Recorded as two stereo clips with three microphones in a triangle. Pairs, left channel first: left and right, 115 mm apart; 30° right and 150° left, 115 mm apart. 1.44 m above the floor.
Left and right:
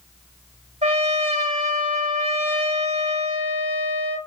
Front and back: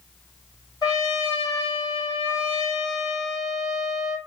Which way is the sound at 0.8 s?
85° right.